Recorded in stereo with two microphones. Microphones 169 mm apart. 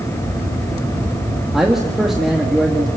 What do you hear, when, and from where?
1.5 s a man speaking: centre (ahead or behind), 2.0 m